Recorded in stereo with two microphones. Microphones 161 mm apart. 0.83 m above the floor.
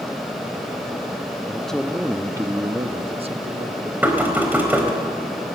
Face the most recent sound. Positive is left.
turn(degrees=-10)  # may be behind; listen again after turning